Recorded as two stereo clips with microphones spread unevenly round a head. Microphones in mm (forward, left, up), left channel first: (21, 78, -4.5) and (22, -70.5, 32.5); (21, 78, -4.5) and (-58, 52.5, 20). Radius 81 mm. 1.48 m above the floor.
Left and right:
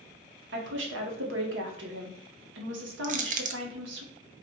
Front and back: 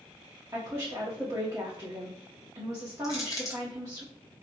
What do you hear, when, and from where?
0.5 s a woman speaking: 90° right, 1.2 m
3.0 s crushing: 50° right, 0.6 m